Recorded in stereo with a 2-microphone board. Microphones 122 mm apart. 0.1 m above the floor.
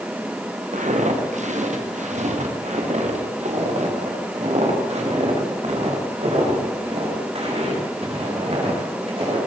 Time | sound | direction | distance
0.7 | footsteps | 85° right | 4 m